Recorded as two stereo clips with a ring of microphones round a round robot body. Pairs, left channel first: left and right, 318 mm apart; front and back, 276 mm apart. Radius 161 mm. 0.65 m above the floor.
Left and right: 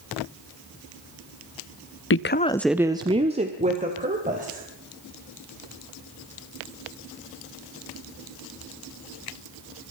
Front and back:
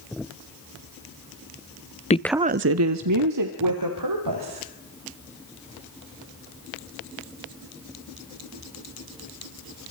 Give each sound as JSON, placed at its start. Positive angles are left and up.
{"t": 2.1, "sound": "a woman speaking", "azimuth_deg": 55, "distance_m": 0.7}